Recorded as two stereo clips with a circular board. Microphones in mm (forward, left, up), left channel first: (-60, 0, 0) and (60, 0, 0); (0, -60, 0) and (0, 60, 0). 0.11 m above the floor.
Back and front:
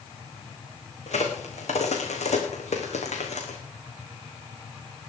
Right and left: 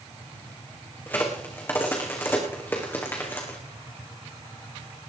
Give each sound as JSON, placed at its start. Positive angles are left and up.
{"t": 1.1, "sound": "a crack", "azimuth_deg": -160, "distance_m": 3.0}